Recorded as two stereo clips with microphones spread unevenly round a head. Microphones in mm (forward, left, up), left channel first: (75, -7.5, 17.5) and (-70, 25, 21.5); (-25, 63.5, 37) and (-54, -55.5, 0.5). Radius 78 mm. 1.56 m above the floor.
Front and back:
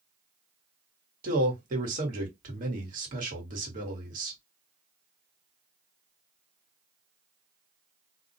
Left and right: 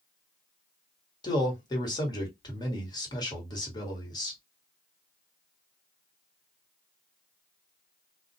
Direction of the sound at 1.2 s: 135° left.